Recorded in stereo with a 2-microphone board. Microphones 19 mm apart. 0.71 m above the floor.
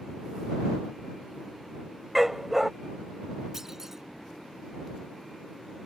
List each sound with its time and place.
2.1 s a dog barking: 10° right (ahead or behind)
3.5 s a clunk: 20° right (ahead or behind)